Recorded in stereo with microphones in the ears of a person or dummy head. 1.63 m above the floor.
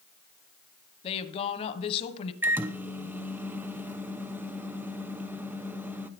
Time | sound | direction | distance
1.0 | a woman speaking | 35° left (ahead or behind) | 1.2 m
2.4 | a microwave | 10° right (ahead or behind) | 0.7 m